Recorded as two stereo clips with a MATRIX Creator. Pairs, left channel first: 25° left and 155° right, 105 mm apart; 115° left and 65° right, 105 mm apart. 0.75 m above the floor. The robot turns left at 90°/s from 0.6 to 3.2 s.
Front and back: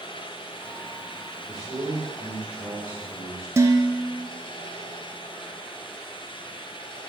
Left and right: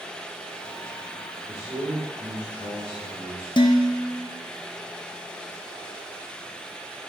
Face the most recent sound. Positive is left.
turn(degrees=145)